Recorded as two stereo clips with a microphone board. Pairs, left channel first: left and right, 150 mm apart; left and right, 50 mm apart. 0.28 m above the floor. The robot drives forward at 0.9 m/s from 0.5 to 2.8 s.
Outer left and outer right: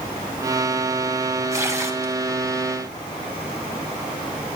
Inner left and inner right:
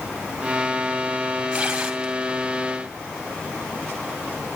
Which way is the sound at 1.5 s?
20° right (ahead or behind).